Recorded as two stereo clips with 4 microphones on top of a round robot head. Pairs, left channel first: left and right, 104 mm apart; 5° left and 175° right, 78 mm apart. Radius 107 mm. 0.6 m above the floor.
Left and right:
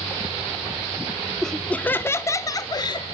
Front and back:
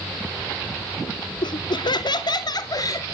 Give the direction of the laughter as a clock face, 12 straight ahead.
12 o'clock.